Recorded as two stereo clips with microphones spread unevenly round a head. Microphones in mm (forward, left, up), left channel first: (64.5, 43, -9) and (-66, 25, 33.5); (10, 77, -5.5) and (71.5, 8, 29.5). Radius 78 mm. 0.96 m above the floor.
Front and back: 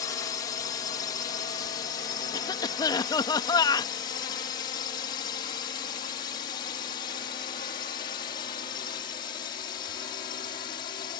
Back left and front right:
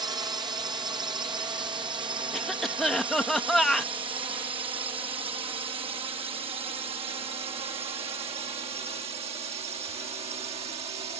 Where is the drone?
Straight ahead; by 11.2 s 35° right.